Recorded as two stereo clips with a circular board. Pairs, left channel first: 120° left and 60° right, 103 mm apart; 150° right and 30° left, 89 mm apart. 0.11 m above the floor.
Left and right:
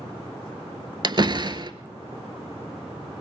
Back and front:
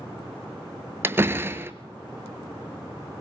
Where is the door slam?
30° right, 1.2 m.